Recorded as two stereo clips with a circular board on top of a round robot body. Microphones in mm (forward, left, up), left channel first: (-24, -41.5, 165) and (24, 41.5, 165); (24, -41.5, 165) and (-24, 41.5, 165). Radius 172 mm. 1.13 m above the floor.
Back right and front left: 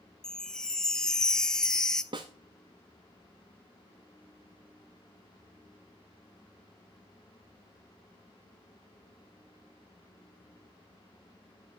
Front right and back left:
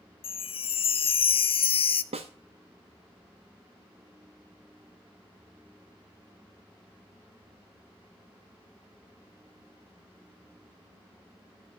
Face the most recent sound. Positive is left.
turn(degrees=100)